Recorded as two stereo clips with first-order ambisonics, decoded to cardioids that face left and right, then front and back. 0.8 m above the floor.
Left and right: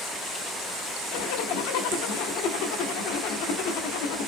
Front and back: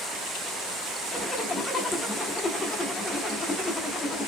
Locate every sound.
1.1 s a zipper: 80° left, 0.9 m